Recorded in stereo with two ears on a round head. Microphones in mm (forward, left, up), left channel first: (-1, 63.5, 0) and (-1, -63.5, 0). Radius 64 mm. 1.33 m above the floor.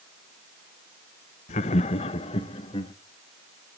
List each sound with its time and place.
1.5 s laughter: 50° left (ahead or behind), 0.8 m; by 2.9 s 35° left (ahead or behind), 1.7 m